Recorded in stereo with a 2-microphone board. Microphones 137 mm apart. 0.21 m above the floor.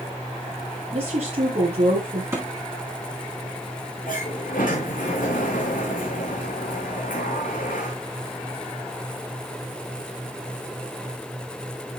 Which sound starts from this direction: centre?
A thud, at 2.3 s.